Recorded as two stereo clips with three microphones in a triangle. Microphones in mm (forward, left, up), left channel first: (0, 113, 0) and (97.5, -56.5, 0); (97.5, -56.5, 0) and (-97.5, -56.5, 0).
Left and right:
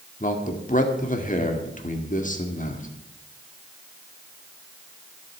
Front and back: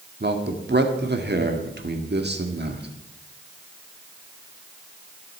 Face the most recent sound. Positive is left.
turn(degrees=160)